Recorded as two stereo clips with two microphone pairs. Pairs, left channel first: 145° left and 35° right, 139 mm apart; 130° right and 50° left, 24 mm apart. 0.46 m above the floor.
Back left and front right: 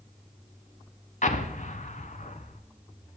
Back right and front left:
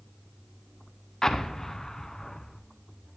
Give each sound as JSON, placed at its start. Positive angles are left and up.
{"t": 1.2, "sound": "an explosion", "azimuth_deg": 165, "distance_m": 0.6}